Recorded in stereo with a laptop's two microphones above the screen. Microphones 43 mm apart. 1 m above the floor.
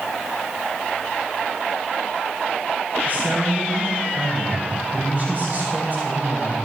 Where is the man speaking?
40° right (ahead or behind), 6.5 m.